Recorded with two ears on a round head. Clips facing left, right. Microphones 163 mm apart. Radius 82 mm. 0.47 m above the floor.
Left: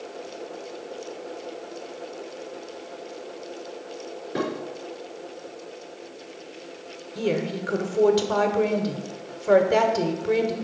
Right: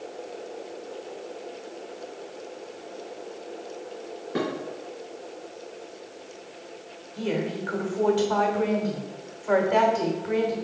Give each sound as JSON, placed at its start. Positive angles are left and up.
{"t": 4.3, "sound": "dishes clattering", "side_deg": 0, "distance_m": 4.5}
{"t": 7.2, "sound": "a woman speaking", "side_deg": 50, "distance_m": 1.2}